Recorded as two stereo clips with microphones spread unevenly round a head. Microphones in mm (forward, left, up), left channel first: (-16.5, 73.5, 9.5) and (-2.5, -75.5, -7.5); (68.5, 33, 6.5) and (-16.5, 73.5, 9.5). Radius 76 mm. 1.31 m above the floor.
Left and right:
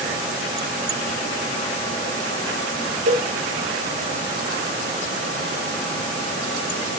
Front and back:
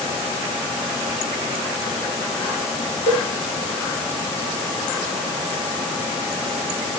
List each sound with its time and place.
3.1 s a cowbell: 60° right, 3 m